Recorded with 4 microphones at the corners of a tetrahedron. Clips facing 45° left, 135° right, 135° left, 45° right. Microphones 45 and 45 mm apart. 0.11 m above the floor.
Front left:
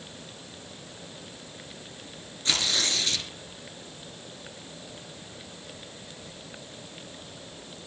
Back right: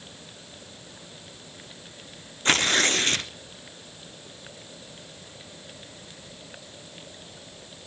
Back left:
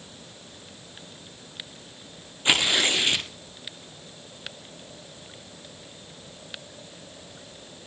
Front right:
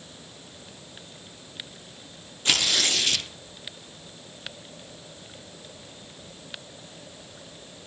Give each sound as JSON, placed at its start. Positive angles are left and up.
{"t": 2.5, "sound": "tearing paper", "azimuth_deg": -160, "distance_m": 1.4}